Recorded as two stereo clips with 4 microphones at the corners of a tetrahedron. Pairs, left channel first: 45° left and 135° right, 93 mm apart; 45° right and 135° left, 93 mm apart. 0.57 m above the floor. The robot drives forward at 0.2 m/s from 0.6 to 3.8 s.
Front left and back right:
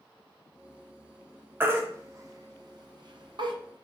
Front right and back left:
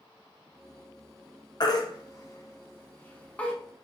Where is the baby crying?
70° right, 0.6 m; by 3.5 s 120° right, 0.6 m.